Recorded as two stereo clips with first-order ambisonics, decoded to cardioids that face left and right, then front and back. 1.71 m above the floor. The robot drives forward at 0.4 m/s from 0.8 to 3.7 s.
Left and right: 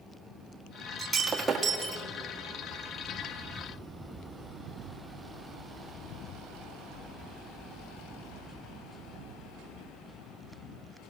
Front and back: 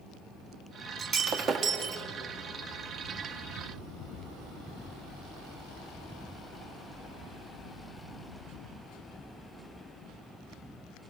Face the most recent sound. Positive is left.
turn(degrees=-170)